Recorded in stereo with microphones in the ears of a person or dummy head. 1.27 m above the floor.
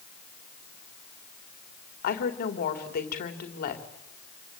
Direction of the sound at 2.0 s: 50° left (ahead or behind).